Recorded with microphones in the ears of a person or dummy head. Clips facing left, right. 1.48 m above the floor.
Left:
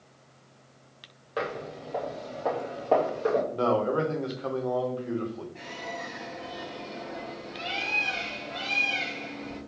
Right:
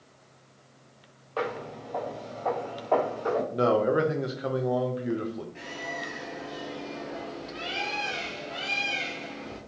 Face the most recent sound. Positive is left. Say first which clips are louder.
# right 1 dB
turn(degrees=-15)  # may be behind; listen again after turning